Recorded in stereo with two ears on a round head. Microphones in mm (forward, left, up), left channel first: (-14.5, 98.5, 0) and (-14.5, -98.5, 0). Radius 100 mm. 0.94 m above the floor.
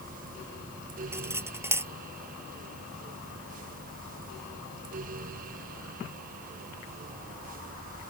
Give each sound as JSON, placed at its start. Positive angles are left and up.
{"t": 1.1, "sound": "cutlery clinking", "side_deg": -10}